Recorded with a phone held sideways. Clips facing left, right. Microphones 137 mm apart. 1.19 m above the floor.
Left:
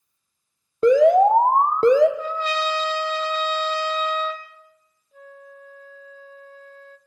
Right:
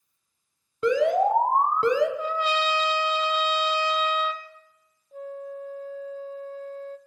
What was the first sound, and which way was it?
An alarm, 45° left (ahead or behind).